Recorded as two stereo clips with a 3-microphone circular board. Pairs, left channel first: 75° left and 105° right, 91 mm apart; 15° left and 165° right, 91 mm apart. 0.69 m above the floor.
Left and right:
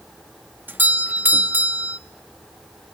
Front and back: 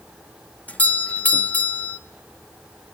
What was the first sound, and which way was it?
A doorbell, 50° right.